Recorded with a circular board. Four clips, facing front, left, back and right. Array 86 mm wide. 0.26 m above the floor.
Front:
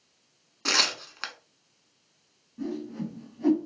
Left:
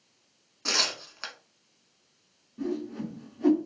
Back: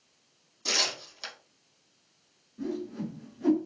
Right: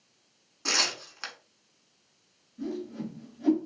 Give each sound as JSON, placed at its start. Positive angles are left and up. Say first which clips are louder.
{"t": 0.7, "sound": "tearing paper", "louder": "even, front 4 dB", "azimuth_deg": -5, "distance_m": 0.8}
{"t": 2.6, "sound": "a whoosh", "louder": "left 3 dB, front 1 dB", "azimuth_deg": 55, "distance_m": 1.5}